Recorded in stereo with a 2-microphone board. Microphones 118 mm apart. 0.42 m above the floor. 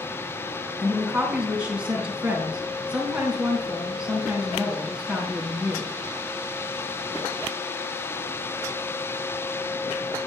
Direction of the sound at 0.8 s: 10° right (ahead or behind).